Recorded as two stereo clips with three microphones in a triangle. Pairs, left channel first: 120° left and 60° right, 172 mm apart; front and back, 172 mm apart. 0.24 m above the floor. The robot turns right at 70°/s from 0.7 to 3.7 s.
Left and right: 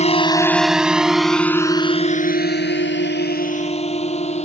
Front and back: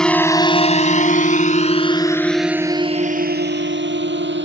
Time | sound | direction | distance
0.0 | a drone | 85° left | ?